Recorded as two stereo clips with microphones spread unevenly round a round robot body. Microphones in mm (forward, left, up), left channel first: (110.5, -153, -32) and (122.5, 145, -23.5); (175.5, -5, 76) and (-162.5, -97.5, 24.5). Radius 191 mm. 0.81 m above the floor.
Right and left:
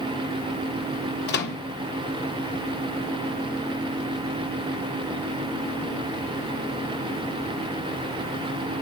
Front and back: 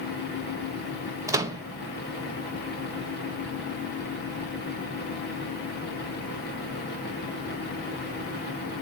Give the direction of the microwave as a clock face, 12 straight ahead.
3 o'clock.